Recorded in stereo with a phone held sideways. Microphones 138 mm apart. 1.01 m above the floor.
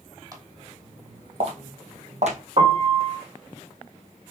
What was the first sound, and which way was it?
Footsteps, 25° right (ahead or behind).